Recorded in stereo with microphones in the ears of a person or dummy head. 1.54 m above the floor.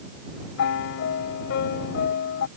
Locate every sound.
0.6 s a piano: 55° left (ahead or behind)